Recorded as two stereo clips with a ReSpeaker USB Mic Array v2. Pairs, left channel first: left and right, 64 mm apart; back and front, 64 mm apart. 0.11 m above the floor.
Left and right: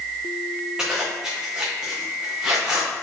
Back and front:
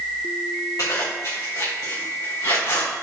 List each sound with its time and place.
0.8 s a zipper: 165° right, 3.5 m